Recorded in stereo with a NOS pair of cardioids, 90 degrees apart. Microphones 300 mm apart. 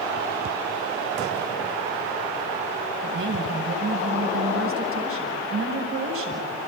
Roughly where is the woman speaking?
Ahead right.